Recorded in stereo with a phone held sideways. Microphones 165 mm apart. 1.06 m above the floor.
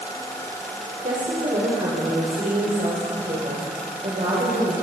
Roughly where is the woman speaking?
Right.